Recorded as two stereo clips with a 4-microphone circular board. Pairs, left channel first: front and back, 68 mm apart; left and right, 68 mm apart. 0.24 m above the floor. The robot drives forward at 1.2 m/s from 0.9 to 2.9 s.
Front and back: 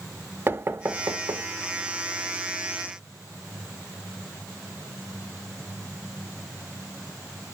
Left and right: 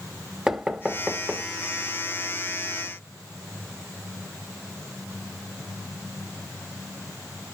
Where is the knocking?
165° right, 0.8 m; by 1.5 s 175° right, 1.3 m.